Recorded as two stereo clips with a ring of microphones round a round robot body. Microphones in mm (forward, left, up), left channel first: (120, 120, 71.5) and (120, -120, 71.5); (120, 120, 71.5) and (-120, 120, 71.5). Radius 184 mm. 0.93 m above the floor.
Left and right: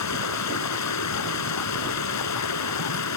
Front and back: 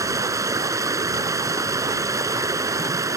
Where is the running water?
105° left.